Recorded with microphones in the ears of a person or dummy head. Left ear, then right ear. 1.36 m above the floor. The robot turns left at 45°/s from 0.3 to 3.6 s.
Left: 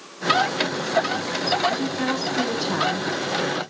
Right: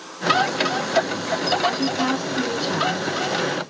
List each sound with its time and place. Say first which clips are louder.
1.7 s a woman speaking: right 2 dB; 165° right, 5 m; by 3.1 s 130° left, 5 m